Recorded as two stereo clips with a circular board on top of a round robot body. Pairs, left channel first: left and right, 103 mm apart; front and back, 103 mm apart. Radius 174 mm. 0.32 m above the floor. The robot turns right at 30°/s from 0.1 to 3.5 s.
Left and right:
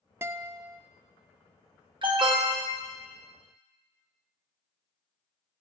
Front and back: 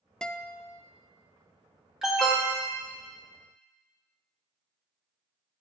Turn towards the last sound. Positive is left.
turn(degrees=-50)